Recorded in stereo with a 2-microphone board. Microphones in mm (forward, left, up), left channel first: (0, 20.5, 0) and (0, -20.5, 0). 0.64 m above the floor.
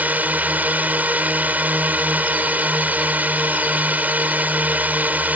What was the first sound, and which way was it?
A drone, 40° right (ahead or behind).